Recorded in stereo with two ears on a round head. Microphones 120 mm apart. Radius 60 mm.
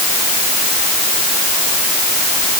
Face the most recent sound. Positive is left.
No sound to turn to.